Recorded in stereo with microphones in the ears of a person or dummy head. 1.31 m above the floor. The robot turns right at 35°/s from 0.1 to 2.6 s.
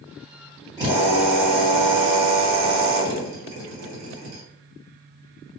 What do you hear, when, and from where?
0.8 s a drill: 160° right, 1.6 m; by 4.4 s 95° right, 1.6 m